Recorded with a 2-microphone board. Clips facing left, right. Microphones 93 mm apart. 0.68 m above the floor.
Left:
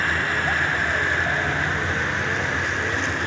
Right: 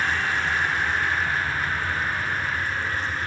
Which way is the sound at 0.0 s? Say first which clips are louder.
Left 1 dB; 60° left (ahead or behind).